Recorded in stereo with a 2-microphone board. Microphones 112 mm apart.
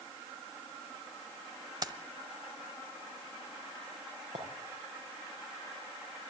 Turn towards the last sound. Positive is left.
turn(degrees=-85)